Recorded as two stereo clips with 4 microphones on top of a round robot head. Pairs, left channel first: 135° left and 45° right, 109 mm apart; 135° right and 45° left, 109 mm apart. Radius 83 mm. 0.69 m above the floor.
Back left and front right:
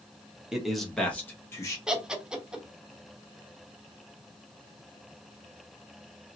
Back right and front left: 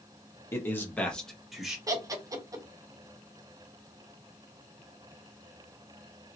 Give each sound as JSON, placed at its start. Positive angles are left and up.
{"t": 0.5, "sound": "a man speaking", "azimuth_deg": -120, "distance_m": 1.2}
{"t": 1.9, "sound": "laughter", "azimuth_deg": 35, "distance_m": 1.0}